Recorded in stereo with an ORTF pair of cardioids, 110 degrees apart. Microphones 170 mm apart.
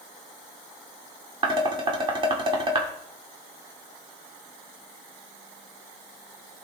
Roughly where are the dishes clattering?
Ahead right.